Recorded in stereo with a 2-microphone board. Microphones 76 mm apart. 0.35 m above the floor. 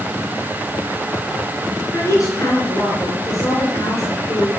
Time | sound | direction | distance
1.9 | a woman speaking | 45° left (ahead or behind) | 4.5 m